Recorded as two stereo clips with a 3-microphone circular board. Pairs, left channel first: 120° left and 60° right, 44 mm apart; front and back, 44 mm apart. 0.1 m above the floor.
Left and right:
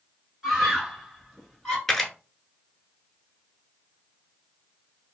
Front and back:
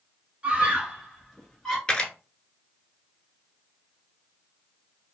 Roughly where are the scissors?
No scissors in this recording.